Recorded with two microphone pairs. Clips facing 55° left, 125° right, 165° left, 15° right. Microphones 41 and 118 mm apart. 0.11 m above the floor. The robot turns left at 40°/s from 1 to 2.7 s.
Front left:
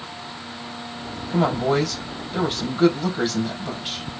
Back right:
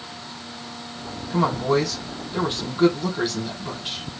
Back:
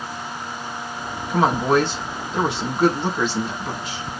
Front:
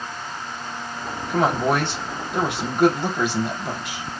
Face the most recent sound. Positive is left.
turn(degrees=-25)